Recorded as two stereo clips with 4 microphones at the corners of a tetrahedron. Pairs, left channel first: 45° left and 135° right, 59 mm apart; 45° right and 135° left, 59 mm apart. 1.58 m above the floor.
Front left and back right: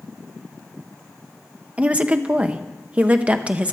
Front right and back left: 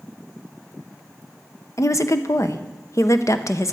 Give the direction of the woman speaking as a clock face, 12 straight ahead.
2 o'clock.